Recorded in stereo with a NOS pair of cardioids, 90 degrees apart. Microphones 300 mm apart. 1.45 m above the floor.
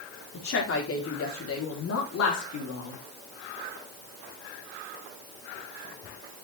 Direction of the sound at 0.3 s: 45° left.